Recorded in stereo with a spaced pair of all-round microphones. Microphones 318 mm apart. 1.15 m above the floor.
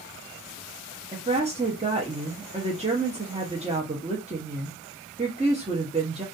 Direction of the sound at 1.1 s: 20° right (ahead or behind).